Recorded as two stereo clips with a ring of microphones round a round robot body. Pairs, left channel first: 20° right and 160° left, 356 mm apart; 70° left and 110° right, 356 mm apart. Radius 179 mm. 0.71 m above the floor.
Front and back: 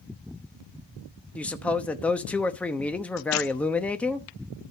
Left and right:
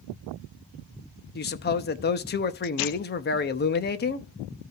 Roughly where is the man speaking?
Ahead left.